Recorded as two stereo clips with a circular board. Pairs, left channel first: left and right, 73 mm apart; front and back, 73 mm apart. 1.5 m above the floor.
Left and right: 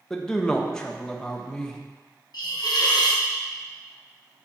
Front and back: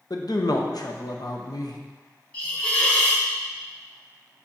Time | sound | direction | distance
0.1 | a man speaking | 10° left | 0.8 m
2.3 | a hiss | 75° left | 1.2 m